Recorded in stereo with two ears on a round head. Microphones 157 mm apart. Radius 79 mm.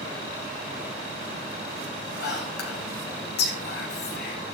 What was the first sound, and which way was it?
Whispering, 65° left (ahead or behind).